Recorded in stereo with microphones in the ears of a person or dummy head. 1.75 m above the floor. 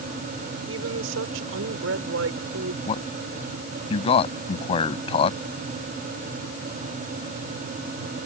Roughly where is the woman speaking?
Right.